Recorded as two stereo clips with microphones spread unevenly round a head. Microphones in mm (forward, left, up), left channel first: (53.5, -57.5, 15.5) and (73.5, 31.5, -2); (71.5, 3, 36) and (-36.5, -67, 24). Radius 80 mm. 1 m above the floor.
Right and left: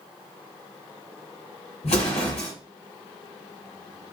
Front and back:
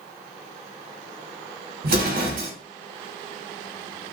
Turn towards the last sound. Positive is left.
turn(degrees=-150)